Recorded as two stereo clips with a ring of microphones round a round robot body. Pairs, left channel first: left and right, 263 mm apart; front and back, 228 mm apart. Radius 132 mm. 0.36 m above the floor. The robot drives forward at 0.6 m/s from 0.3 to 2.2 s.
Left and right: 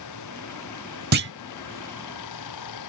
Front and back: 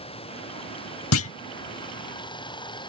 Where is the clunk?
35° right; by 1.3 s 40° right.